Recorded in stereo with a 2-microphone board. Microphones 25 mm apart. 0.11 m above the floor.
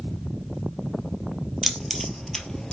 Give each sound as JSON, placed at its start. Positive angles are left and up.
{"t": 1.6, "sound": "keys jangling", "side_deg": 0, "distance_m": 1.6}